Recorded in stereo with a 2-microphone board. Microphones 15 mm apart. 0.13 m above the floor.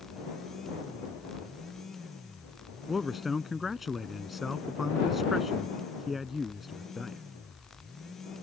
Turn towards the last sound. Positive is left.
turn(degrees=-15)  # may be behind; listen again after turning